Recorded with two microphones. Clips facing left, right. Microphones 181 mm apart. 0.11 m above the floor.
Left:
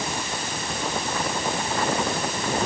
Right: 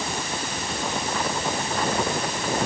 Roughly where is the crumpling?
No crumpling in this recording.